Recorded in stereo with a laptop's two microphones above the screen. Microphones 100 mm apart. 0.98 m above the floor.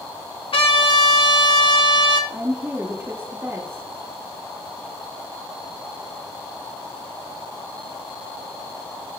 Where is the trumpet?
60° left (ahead or behind), 2.0 m.